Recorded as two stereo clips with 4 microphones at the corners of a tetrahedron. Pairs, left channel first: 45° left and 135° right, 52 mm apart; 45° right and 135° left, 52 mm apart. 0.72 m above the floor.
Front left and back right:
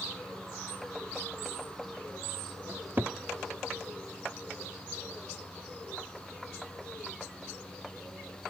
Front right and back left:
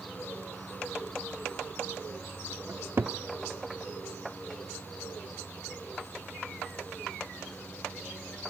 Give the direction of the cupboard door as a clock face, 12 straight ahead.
6 o'clock.